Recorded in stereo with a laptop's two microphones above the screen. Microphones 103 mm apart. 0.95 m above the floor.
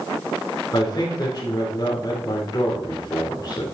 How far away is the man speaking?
About 3 m.